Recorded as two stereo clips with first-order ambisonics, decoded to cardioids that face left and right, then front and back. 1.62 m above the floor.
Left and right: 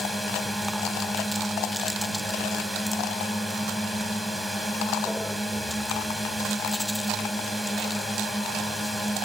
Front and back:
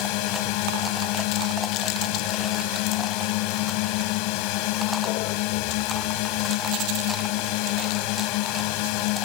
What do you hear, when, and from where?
0.0 s a drone: 5° right